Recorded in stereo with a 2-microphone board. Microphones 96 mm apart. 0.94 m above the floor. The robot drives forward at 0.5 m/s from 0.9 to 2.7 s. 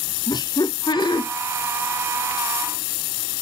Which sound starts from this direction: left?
Laughter, at 0.3 s.